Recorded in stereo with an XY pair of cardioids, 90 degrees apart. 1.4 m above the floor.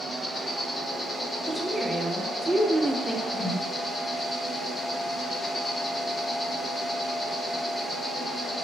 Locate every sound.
0.0 s an insect: 35° left, 0.8 m
1.5 s a woman speaking: 15° right, 0.7 m
3.3 s a whoosh: 20° left, 1.2 m